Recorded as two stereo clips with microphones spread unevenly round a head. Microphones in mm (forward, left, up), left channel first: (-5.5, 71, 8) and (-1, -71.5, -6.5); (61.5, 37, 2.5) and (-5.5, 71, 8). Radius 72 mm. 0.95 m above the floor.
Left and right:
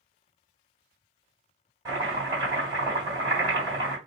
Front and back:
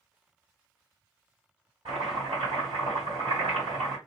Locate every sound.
1.9 s chopping: 155° right, 1.5 m